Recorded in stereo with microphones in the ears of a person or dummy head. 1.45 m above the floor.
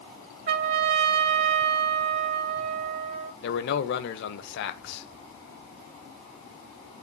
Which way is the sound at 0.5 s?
50° right (ahead or behind).